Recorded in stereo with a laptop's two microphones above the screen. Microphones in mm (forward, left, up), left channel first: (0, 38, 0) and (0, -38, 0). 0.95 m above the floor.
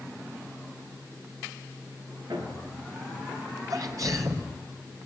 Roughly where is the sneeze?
Right.